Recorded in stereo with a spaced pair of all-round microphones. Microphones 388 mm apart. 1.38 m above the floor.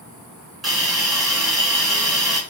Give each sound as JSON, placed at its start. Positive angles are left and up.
{"t": 0.6, "sound": "a hiss", "side_deg": 0, "distance_m": 6.0}